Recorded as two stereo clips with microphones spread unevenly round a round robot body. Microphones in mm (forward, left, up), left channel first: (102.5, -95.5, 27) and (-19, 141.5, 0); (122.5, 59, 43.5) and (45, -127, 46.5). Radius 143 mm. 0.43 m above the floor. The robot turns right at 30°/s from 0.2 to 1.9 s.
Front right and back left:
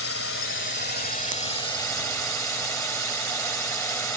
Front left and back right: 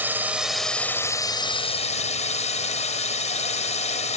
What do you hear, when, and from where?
0.0 s a drone: 35° right; by 4.2 s 20° left